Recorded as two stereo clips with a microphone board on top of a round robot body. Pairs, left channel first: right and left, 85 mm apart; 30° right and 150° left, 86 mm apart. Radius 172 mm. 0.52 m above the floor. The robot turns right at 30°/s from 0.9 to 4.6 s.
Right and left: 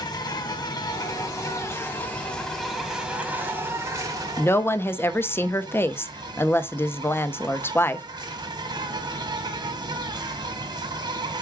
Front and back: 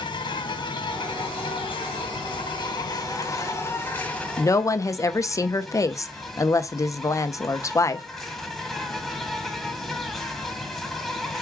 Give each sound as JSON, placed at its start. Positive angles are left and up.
{"t": 0.0, "sound": "an insect", "azimuth_deg": -50, "distance_m": 1.4}
{"t": 4.4, "sound": "a woman speaking", "azimuth_deg": -50, "distance_m": 0.8}